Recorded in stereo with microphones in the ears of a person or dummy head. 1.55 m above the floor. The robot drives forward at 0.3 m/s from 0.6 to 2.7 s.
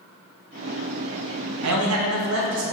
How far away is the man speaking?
About 0.5 m.